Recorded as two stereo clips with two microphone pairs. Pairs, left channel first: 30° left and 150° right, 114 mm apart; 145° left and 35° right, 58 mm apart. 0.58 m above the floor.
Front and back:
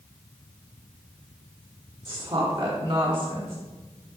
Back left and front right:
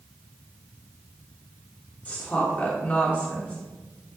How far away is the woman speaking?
About 1.4 m.